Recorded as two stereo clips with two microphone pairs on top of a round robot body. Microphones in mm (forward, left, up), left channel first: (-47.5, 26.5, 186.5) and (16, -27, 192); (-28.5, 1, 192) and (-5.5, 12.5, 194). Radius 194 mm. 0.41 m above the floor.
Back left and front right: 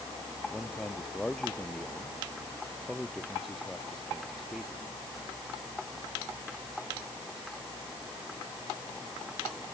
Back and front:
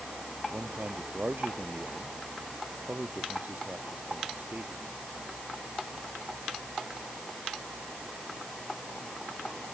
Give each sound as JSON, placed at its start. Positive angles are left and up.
{"t": 0.5, "sound": "a man speaking", "azimuth_deg": 60}